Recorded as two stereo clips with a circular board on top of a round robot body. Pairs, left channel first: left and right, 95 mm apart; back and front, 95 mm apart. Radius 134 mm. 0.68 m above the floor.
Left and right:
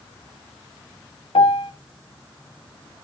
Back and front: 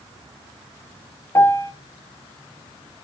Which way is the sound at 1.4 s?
115° left.